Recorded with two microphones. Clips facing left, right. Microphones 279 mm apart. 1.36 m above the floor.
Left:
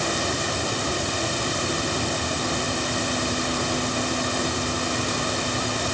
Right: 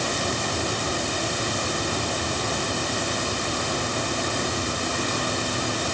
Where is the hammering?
No hammering in this recording.